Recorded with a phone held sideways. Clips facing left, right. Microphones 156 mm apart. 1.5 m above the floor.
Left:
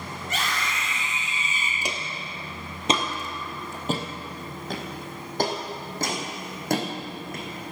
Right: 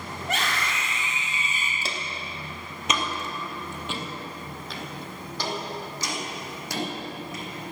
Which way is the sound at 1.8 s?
15° left (ahead or behind).